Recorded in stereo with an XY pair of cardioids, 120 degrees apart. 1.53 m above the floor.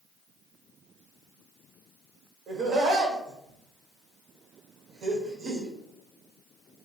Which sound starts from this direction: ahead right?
Laughter, at 2.5 s.